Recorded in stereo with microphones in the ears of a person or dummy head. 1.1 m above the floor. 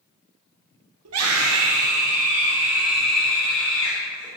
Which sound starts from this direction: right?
A scream, at 1.1 s.